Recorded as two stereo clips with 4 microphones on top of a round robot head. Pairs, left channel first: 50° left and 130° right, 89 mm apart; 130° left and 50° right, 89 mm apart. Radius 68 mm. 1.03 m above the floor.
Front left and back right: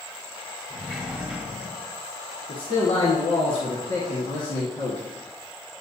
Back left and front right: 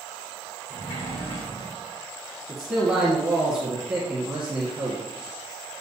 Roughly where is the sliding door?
Behind left.